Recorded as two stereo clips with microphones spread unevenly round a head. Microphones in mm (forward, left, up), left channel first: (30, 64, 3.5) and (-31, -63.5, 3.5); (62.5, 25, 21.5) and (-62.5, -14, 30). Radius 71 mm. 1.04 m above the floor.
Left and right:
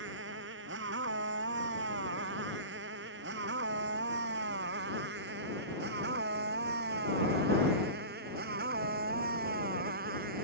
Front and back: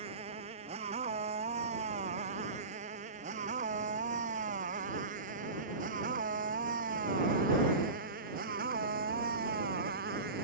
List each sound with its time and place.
0.0 s a motorcycle: 115° right; by 10.4 s 145° right